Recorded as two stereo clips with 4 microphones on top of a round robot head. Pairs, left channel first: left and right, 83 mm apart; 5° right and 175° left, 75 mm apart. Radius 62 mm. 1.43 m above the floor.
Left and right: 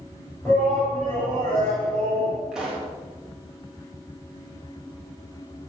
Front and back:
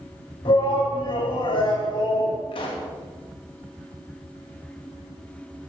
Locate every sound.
0.5 s a shout: 10° left, 7.5 m
2.5 s a pop: 5° right, 3 m